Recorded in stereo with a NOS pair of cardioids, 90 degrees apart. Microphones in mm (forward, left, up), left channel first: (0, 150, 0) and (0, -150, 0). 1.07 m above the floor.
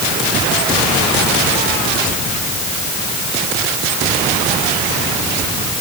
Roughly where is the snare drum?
No snare drum in this recording.